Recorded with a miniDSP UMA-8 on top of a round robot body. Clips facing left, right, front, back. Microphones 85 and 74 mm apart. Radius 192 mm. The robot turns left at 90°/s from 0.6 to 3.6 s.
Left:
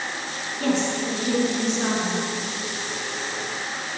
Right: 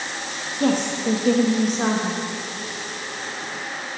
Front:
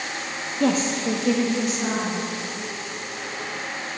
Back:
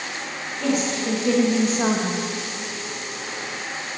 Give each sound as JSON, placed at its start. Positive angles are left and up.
{"t": 0.6, "sound": "a woman speaking", "azimuth_deg": -35, "distance_m": 0.8}